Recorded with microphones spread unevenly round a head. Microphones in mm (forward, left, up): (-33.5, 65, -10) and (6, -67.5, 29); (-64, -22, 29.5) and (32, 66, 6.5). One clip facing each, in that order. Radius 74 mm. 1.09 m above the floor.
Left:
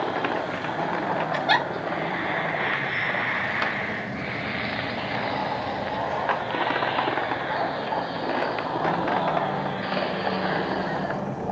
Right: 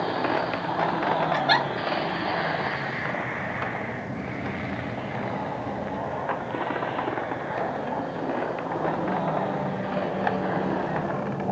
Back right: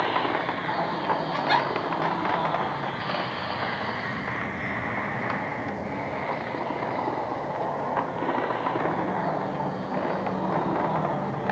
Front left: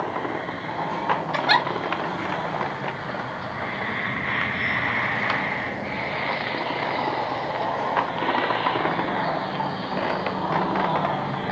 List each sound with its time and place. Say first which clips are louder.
1.3 s a giggle: even, front left 2 dB; 35° left, 2 m